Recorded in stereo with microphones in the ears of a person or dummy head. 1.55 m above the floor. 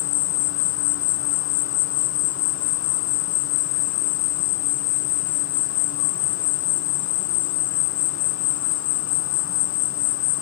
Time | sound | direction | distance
0.0 | an insect | 70° left (ahead or behind) | 1.2 m